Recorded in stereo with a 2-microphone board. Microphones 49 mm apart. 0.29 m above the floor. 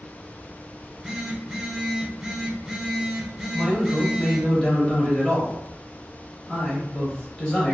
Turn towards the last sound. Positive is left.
turn(degrees=15)  # may be behind; listen again after turning